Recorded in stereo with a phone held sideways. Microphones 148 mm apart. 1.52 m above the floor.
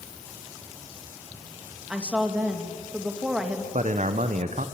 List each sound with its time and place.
1.9 s a woman speaking: 5° right (ahead or behind), 2.5 m
3.7 s a man speaking: 60° right (ahead or behind), 0.9 m